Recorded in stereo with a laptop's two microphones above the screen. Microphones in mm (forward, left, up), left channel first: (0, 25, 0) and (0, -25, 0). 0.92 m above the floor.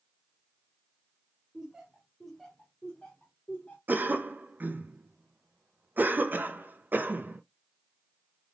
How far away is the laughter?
About 0.9 m.